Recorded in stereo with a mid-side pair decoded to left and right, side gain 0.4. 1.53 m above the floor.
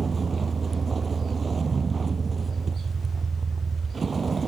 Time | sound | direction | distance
0.0 | a vehicle | 40° right | ?